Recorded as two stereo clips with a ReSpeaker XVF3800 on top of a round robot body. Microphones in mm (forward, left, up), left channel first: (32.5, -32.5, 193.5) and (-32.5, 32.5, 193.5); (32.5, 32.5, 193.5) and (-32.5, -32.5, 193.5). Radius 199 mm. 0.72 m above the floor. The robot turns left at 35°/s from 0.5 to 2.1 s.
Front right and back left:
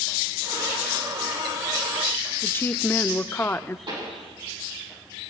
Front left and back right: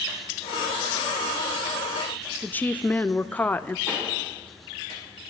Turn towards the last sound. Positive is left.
turn(degrees=180)